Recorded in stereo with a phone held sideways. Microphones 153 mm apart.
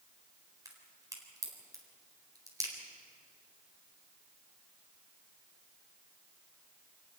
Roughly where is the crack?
Right.